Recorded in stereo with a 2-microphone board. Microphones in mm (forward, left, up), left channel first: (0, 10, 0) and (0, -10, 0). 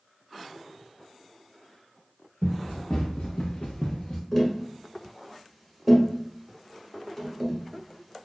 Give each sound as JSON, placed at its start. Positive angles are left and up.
{"t": 2.4, "sound": "running footsteps", "side_deg": 85, "distance_m": 1.1}
{"t": 4.3, "sound": "tapping", "side_deg": 15, "distance_m": 1.2}